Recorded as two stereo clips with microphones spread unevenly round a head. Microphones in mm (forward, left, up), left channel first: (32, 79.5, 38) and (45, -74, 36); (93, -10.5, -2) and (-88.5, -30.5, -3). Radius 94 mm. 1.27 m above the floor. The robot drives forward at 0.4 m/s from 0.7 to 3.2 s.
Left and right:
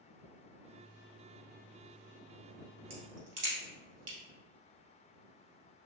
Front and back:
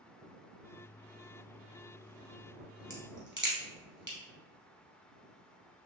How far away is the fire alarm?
I don't hear a fire alarm.